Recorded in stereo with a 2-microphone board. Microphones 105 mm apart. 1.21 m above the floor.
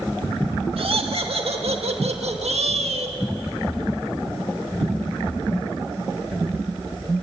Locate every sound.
0.8 s laughter: 60° right (ahead or behind), 2 m; by 3.2 s 75° right (ahead or behind), 1.4 m